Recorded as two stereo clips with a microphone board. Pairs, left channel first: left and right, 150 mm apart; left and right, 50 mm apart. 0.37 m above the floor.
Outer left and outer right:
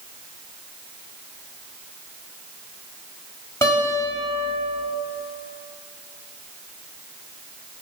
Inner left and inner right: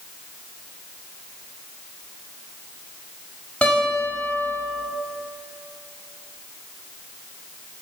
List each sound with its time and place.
3.6 s a guitar: 20° left (ahead or behind), 1.7 m